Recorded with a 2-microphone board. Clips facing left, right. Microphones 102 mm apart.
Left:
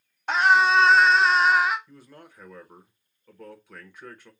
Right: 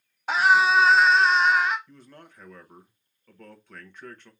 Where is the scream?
5° right (ahead or behind), 1.0 m; by 1.8 s 5° left (ahead or behind), 0.7 m.